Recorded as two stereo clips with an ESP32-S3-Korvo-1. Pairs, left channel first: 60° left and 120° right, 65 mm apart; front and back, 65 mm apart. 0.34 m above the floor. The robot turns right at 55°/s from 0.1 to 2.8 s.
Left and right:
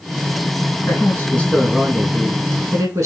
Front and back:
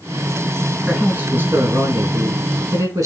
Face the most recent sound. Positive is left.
turn(degrees=-150)